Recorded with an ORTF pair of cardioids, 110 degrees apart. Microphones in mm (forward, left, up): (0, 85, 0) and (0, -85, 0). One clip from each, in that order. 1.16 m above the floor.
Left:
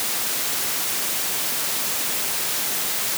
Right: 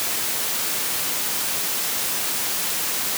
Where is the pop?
No pop in this recording.